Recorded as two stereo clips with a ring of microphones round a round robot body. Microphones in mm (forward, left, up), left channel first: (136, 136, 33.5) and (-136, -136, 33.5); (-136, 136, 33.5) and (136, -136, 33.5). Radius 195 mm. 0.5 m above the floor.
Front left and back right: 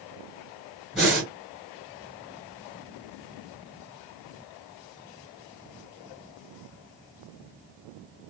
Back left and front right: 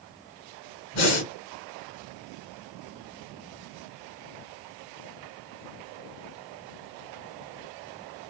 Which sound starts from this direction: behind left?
Breathing, at 0.9 s.